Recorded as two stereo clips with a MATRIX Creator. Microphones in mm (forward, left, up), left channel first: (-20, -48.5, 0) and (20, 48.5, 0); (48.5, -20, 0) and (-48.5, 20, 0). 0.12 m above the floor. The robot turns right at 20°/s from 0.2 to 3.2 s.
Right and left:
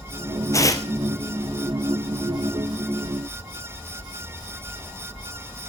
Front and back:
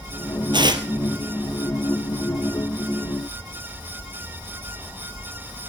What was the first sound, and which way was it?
Tearing paper, 170° right.